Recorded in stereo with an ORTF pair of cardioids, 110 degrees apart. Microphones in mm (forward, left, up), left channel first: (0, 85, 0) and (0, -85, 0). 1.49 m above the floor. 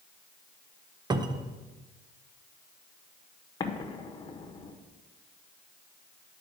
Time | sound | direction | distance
1.1 | a cupboard door | 25° right | 0.8 m
3.6 | an explosion | 25° left | 1.3 m